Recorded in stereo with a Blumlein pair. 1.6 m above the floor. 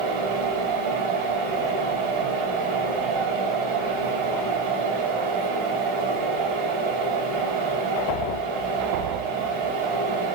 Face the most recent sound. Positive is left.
turn(degrees=-45)